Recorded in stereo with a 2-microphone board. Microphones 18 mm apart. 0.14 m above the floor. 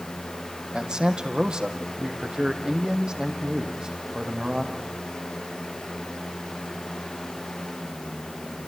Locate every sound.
0.7 s a man speaking: 65° right (ahead or behind), 4 m; by 4.9 s 35° right (ahead or behind), 6.5 m